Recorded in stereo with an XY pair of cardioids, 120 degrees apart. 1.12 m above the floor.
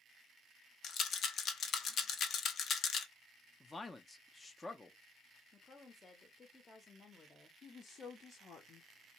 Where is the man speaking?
20° left, 0.5 m.